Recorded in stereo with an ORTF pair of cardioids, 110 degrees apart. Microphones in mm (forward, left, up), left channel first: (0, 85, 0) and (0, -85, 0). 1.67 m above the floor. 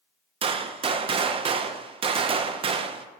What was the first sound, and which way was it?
A gunshot, 35° right.